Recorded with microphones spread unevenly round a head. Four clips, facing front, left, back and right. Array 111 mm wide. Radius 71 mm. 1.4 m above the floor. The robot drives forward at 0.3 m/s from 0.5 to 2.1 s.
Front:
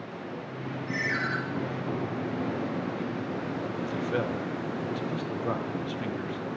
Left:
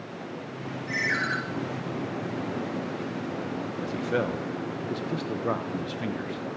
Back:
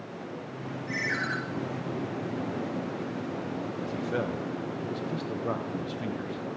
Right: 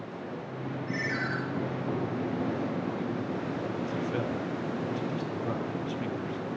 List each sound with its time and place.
0.9 s a ringtone: 90° left, 4.5 m
3.8 s a man speaking: 65° left, 0.9 m